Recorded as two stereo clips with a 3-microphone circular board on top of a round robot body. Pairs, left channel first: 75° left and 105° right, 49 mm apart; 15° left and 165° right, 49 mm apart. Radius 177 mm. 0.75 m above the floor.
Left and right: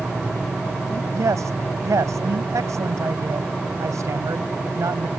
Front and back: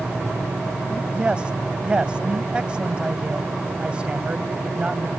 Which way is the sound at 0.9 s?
95° right.